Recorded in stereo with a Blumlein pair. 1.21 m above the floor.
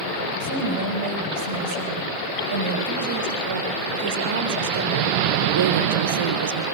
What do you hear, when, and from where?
0.4 s a woman speaking: 55° right, 5.5 m; by 6.7 s 70° right, 1.5 m